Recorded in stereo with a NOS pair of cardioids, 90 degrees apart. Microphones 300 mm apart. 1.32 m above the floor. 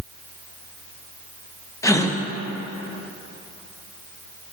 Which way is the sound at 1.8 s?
10° left.